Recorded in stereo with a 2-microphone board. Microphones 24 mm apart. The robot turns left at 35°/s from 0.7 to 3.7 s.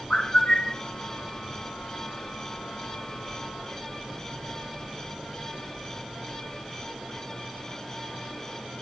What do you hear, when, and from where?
0.1 s a bird: 40° left (ahead or behind), 1.7 m